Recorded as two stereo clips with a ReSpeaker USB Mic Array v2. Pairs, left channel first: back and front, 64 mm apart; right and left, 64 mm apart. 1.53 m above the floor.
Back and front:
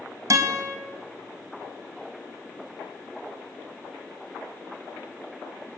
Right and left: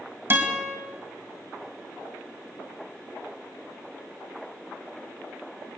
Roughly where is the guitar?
Ahead left.